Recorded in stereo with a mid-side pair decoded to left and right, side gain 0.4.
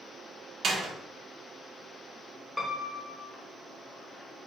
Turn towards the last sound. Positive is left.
turn(degrees=15)